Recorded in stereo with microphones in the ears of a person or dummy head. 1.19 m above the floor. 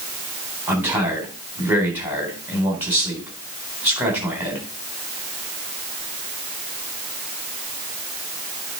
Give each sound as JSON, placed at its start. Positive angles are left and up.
{"t": 0.7, "sound": "a man speaking", "side_deg": -5, "distance_m": 4.0}